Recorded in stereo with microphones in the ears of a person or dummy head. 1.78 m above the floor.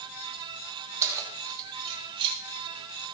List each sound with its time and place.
1.0 s keys jangling: 15° right (ahead or behind), 1.4 m; by 2.4 s 30° right (ahead or behind), 2.5 m